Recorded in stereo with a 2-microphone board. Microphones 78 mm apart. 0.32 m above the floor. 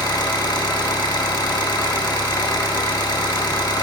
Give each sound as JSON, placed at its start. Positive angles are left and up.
{"t": 0.0, "sound": "an engine running", "side_deg": 70, "distance_m": 0.7}